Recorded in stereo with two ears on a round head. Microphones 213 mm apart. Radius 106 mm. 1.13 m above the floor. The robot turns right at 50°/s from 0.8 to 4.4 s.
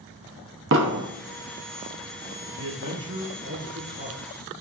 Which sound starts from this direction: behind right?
A man speaking, at 2.5 s.